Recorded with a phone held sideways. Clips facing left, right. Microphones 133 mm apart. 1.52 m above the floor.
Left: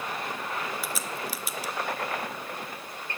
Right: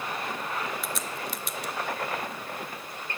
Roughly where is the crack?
Centre.